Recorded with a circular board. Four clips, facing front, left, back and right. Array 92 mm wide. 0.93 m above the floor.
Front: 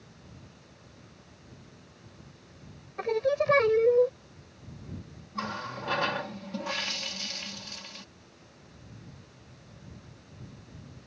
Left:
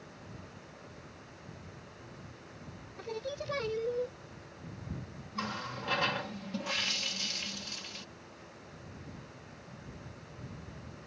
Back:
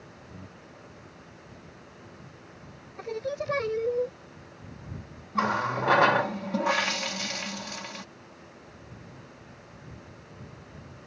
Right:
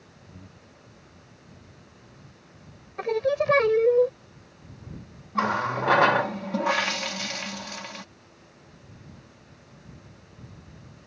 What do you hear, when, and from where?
0.3 s breathing: 135° right
3.0 s singing: 65° right
5.3 s a running tap: 120° right